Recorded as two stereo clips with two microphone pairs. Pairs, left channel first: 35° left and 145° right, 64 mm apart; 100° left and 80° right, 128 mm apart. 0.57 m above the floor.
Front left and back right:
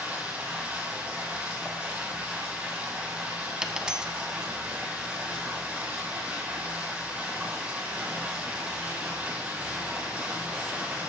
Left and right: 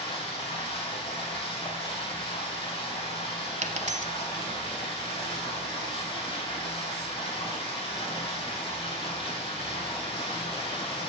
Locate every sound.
0.0 s running water: 145° left, 3 m
3.6 s a dropped coin: 70° right, 0.9 m